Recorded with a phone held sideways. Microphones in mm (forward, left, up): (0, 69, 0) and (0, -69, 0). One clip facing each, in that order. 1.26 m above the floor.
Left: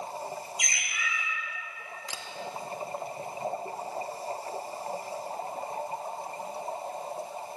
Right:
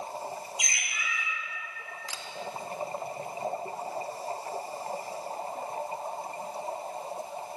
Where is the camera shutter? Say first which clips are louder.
Left 1 dB; 25° left (ahead or behind), 1.0 m.